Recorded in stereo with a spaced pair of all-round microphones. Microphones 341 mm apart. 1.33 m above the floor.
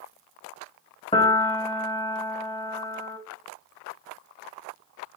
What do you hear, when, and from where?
1.1 s a piano: 15° left (ahead or behind), 0.6 m